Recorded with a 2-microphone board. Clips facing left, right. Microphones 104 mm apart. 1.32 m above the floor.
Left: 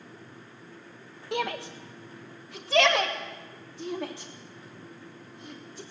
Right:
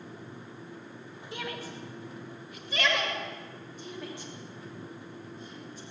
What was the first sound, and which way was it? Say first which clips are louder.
A shout: left 8 dB; 70° left (ahead or behind).